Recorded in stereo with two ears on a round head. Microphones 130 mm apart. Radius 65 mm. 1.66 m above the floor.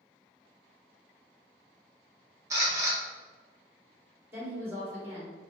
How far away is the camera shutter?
About 1.3 m.